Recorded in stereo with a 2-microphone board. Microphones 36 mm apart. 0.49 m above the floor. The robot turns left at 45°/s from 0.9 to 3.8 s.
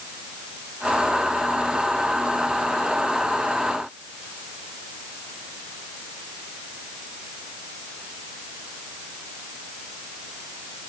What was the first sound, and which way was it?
Only background noise.